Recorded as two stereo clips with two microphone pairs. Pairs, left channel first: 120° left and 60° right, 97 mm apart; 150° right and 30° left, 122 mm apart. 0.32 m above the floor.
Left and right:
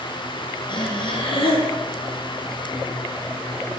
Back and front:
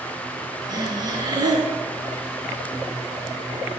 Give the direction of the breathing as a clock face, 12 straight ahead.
9 o'clock.